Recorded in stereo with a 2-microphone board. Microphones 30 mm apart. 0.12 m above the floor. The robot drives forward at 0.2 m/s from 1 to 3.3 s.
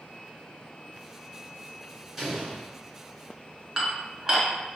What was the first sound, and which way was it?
An explosion, 10° right (ahead or behind).